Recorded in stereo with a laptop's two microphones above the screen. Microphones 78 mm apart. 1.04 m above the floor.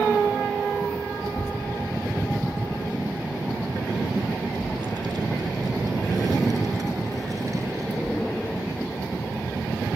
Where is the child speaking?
85° right; by 9.8 s 35° right (ahead or behind).